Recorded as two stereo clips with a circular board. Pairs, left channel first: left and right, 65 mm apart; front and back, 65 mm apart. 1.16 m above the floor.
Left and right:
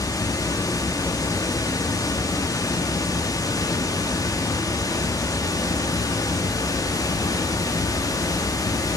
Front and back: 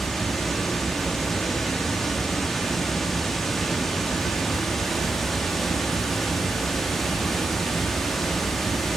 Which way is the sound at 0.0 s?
85° left.